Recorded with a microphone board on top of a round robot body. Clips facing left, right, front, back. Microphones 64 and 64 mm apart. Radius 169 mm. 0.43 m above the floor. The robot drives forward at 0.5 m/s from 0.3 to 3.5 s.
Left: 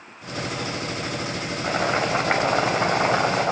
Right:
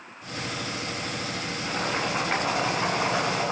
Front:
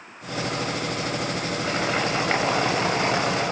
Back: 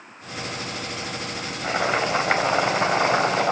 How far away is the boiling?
About 3.5 m.